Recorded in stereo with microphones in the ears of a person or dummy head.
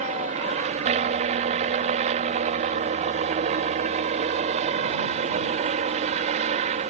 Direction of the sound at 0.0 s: 40° right (ahead or behind).